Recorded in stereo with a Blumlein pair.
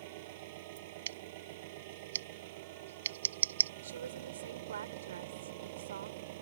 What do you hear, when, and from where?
0.0 s an engine running: 50° right
1.1 s scissors: 65° right
3.8 s a woman speaking: 65° right